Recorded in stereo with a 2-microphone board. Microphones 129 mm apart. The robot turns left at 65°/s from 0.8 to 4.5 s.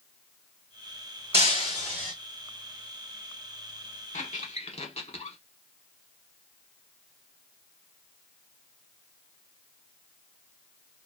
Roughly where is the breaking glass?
Behind right.